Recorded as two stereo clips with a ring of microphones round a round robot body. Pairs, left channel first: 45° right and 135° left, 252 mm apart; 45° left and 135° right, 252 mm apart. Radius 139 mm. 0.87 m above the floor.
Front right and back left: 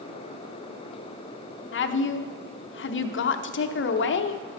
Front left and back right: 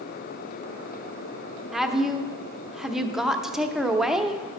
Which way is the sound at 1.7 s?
50° right.